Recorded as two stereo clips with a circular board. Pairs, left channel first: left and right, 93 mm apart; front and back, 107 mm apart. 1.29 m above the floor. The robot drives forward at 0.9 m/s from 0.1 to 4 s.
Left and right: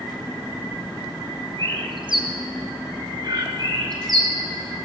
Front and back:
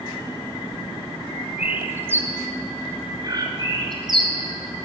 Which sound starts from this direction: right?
A bird, at 1.6 s.